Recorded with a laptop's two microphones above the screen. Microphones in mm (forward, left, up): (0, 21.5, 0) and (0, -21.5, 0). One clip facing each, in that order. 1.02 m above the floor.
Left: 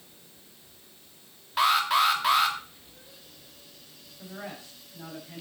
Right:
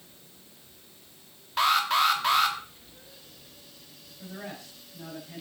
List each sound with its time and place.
1.6 s an alarm: 5° left (ahead or behind), 1.2 m
4.2 s a man speaking: 20° left (ahead or behind), 5.5 m